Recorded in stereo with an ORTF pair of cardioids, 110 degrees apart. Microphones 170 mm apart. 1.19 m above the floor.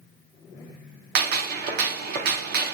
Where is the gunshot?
65° right, 0.8 m.